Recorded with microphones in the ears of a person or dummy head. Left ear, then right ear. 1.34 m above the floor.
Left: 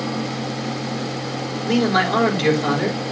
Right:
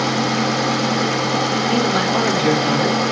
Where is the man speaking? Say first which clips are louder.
Right 1 dB; 15° left (ahead or behind), 6.5 m.